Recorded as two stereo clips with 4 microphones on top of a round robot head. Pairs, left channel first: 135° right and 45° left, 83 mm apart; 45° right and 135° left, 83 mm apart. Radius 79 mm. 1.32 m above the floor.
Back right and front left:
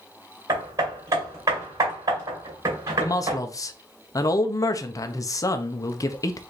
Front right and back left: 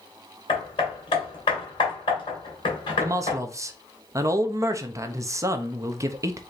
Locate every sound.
0.5 s hammering: 10° right, 2.5 m
3.0 s a man speaking: straight behind, 0.7 m